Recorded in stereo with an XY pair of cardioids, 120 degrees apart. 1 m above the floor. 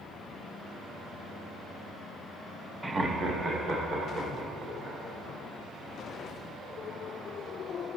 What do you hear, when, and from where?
2.8 s laughter: 15° right, 0.5 m; by 5.0 s 40° right, 4 m